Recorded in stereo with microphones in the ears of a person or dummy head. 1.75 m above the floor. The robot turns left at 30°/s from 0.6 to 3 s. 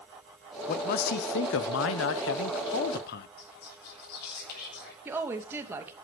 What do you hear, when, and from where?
0.7 s a man speaking: 130° left, 1.1 m; by 3.3 s 60° left, 1.1 m
3.4 s whispering: 60° left (ahead or behind), 8.5 m
5.0 s a woman speaking: 15° right (ahead or behind), 2.5 m